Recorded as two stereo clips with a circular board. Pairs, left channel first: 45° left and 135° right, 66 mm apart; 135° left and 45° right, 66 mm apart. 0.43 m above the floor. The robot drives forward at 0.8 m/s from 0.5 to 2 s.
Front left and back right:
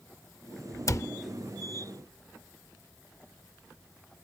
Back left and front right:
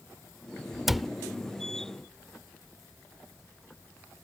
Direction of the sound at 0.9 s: 40° left.